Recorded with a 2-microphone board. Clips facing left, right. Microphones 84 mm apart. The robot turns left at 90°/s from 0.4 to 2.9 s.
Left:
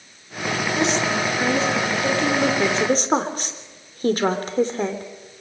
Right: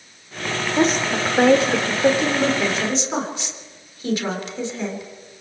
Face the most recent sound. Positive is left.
turn(degrees=45)  # may be behind; listen again after turning